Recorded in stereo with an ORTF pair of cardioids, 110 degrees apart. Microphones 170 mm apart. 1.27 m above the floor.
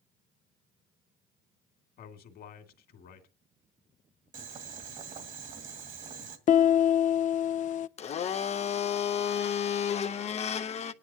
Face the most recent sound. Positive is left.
turn(degrees=40)